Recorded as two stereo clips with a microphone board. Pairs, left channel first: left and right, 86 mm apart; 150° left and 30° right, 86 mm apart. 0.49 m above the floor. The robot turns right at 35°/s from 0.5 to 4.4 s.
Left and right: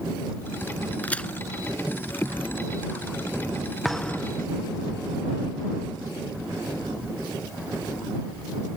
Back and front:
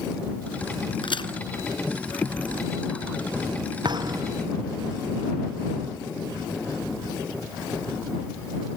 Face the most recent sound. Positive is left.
turn(degrees=20)